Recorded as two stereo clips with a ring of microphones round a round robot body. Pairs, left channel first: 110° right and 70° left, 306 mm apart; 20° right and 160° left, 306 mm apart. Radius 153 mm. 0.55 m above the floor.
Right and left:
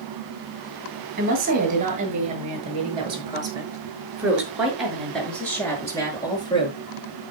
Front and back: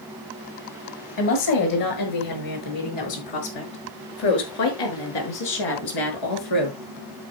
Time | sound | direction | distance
1.2 | a woman speaking | 5° left | 8 m